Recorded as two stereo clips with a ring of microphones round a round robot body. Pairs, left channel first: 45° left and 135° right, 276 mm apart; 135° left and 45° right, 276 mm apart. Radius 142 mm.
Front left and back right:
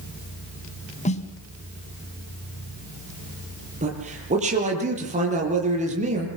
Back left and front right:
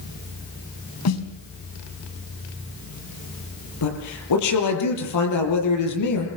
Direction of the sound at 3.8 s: 160° left.